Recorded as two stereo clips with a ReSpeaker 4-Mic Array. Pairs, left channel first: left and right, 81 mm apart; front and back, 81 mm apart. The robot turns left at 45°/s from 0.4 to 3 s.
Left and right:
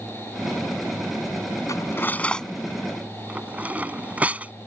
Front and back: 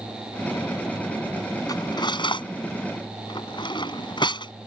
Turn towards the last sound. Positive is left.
turn(degrees=-20)